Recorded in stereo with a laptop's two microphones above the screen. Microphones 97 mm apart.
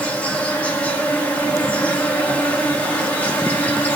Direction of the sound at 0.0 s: 15° left (ahead or behind).